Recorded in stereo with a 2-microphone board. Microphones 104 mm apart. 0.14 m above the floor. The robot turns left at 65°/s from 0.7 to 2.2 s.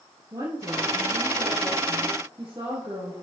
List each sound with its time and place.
0.3 s a woman speaking: 40° right, 2.5 m; by 3.1 s 140° right, 2.5 m